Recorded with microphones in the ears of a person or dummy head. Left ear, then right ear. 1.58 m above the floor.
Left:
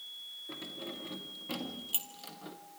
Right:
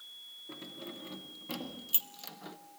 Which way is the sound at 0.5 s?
Centre (ahead or behind).